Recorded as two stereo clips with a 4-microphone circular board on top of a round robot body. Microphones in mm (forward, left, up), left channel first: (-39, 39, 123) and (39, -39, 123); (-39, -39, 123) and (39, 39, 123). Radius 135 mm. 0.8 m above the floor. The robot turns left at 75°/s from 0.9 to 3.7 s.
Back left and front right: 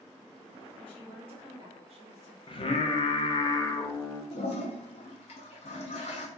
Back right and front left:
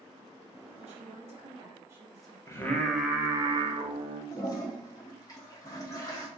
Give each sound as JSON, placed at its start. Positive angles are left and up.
{"t": 0.8, "sound": "a woman speaking", "azimuth_deg": 55, "distance_m": 1.5}
{"t": 2.5, "sound": "singing", "azimuth_deg": 170, "distance_m": 0.7}
{"t": 4.3, "sound": "a toilet flushing", "azimuth_deg": 165, "distance_m": 0.6}